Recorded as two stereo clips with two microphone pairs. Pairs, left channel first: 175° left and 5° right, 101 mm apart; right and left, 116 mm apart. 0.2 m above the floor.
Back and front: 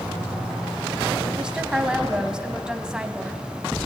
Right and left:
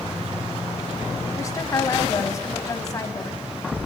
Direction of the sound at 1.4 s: 75° right.